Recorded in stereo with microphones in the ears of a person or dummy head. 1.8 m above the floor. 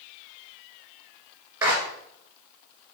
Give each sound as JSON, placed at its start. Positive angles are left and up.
{"t": 1.6, "sound": "a clap", "side_deg": -20, "distance_m": 2.0}